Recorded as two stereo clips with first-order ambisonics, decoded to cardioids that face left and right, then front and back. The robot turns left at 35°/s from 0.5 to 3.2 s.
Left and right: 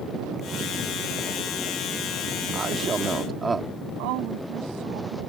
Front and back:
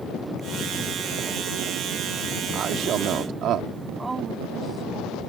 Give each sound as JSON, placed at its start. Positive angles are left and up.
{"t": 2.5, "sound": "a man speaking", "azimuth_deg": -135}
{"t": 4.0, "sound": "a woman speaking", "azimuth_deg": -100}